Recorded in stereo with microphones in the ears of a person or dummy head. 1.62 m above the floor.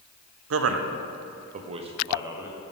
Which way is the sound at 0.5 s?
75° right (ahead or behind).